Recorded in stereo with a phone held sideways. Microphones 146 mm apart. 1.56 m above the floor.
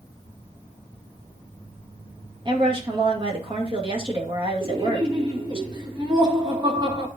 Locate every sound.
2.5 s a woman speaking: 35° right (ahead or behind), 2 m
4.6 s laughter: 30° right (ahead or behind), 2.5 m